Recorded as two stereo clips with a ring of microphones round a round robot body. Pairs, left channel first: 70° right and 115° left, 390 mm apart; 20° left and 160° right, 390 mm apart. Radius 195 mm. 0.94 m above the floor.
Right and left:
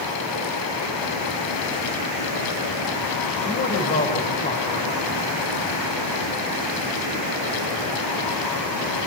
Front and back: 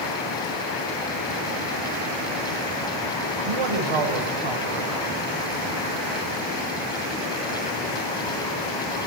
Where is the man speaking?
135° right, 5 m.